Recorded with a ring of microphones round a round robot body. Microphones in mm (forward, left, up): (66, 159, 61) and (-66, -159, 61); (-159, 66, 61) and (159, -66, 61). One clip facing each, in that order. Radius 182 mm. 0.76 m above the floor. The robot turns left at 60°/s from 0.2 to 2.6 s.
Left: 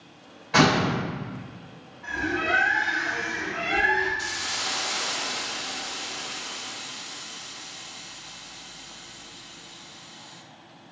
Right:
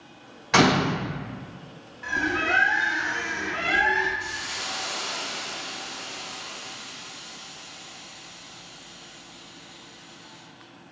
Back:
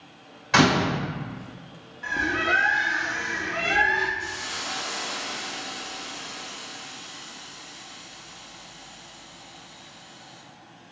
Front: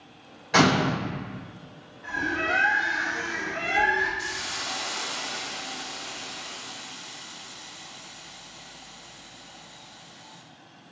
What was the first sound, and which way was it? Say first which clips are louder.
A door slam: right 1 dB, back 1 dB; 130° right.